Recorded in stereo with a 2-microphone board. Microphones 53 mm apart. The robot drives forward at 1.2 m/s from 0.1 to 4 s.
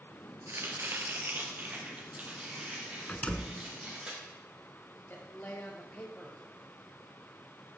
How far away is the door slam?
About 0.8 m.